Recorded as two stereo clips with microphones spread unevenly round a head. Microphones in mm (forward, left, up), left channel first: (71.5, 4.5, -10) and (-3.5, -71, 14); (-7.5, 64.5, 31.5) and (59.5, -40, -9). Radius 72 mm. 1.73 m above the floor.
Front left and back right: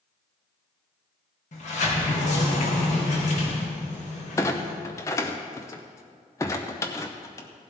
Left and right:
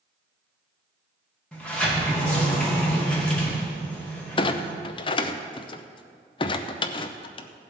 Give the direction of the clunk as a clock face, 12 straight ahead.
8 o'clock.